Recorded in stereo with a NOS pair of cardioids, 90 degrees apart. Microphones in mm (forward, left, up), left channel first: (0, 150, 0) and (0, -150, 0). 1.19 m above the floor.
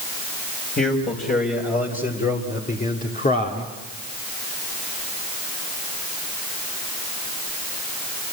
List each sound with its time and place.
0.8 s a man speaking: 25° left, 5.5 m; by 3.7 s 30° left, 2.5 m